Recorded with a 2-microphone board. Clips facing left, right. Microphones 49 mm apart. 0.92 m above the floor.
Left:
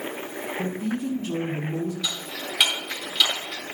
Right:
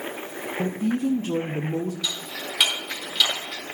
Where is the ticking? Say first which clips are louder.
Even; 10° left (ahead or behind), 2 m.